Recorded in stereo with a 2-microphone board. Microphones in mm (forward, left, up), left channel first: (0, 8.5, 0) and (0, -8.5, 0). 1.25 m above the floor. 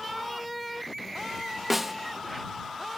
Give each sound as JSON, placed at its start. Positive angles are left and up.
{"t": 1.7, "sound": "a snare drum", "side_deg": -10}